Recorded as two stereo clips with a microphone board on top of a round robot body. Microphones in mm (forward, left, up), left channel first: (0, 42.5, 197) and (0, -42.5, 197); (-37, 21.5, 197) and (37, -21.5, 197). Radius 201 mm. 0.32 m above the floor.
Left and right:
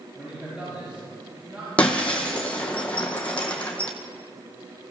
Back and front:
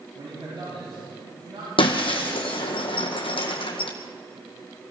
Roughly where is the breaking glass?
Behind.